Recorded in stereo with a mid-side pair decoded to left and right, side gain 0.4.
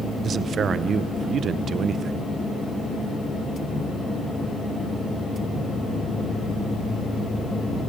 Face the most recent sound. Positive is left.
turn(degrees=-60)